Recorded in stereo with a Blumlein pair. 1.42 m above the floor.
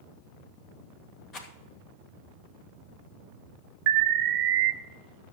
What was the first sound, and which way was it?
A rattle, 30° left.